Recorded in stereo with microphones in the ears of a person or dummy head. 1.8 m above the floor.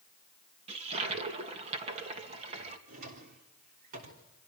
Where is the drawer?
55° right (ahead or behind), 3 m.